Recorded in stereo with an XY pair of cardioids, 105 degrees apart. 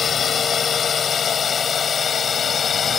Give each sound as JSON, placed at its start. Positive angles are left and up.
{"t": 0.0, "sound": "a drone", "azimuth_deg": 45}